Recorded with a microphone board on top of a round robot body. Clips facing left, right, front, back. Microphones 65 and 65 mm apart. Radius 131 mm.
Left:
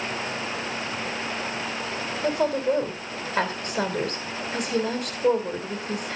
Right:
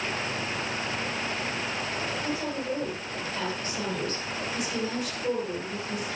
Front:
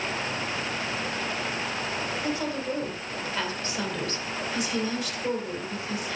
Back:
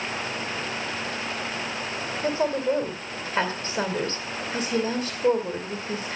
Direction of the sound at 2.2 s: 130° left.